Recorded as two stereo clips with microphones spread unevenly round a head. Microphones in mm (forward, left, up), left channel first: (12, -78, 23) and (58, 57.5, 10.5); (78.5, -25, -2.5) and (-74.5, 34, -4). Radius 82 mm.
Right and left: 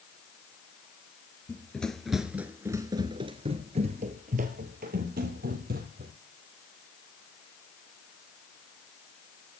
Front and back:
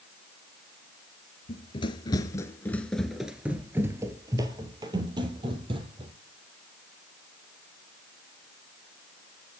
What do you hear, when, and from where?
1.5 s running footsteps: 45° right, 1.5 m; by 6.1 s 105° left, 3 m